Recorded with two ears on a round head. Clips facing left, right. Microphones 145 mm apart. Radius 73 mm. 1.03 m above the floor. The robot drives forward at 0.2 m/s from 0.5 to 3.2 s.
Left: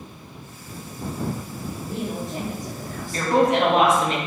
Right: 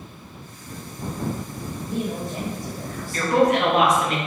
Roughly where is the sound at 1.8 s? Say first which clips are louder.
Right 2 dB; centre.